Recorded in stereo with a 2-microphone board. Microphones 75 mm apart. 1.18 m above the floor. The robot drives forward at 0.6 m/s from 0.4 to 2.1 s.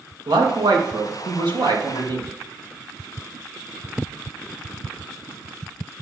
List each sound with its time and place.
0.3 s a man speaking: 75° right (ahead or behind), 1.8 m; by 2.3 s 65° right (ahead or behind), 1.9 m